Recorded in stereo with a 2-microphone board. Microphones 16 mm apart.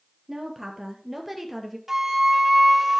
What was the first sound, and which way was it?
A woman speaking, 25° right (ahead or behind).